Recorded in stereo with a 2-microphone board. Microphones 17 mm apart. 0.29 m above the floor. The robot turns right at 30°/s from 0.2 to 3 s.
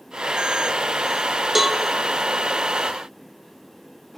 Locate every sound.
1.6 s a cowbell: 25° right (ahead or behind), 1.2 m; by 1.8 s 30° right (ahead or behind), 1.2 m